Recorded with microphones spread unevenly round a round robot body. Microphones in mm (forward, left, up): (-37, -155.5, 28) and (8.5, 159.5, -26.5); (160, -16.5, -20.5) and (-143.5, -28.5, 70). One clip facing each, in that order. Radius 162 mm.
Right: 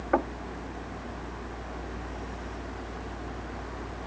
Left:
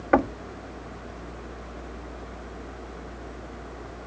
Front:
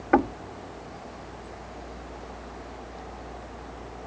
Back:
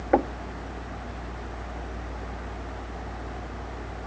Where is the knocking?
60° left.